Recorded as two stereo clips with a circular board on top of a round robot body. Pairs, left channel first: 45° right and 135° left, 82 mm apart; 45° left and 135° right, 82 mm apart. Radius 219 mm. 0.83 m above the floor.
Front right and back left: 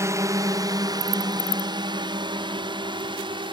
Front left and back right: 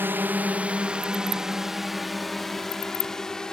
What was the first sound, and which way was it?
A drone, 175° left.